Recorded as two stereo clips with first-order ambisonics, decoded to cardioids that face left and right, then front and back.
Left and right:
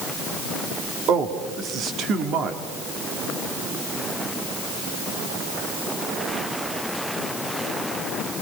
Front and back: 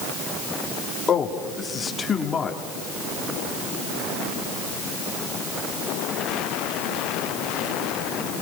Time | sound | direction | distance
1.1 | a man speaking | 60° right | 1.6 m